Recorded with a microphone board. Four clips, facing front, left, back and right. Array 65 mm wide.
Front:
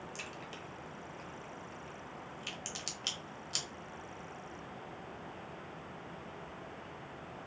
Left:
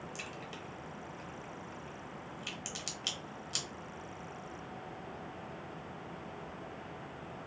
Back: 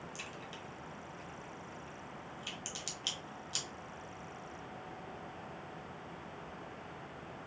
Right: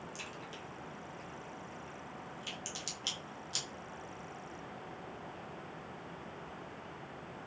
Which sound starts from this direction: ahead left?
A crack, at 0.1 s.